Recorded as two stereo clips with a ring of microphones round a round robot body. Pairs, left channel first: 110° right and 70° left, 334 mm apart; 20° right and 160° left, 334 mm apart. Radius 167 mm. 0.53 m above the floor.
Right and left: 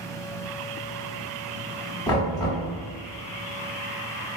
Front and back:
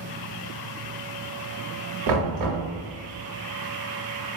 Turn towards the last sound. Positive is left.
turn(degrees=170)